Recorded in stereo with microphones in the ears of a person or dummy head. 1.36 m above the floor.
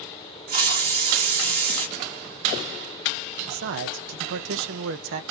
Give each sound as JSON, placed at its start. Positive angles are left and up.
{"t": 0.5, "sound": "a hiss", "side_deg": -50, "distance_m": 1.6}
{"t": 3.5, "sound": "a man speaking", "side_deg": -70, "distance_m": 0.8}